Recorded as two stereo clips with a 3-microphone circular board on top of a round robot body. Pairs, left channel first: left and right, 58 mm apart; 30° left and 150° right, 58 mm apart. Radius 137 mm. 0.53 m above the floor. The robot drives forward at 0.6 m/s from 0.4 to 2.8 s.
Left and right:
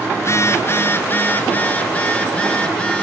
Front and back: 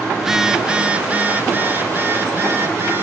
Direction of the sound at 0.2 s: 130° left.